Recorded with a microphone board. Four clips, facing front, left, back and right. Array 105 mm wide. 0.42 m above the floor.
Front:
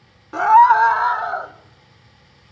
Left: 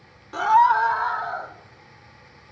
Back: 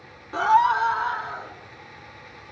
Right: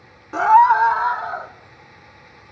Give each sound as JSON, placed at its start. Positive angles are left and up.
{"t": 0.3, "sound": "a scream", "azimuth_deg": -65, "distance_m": 0.8}